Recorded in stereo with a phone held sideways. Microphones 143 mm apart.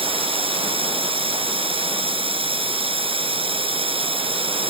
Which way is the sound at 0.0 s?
40° right (ahead or behind).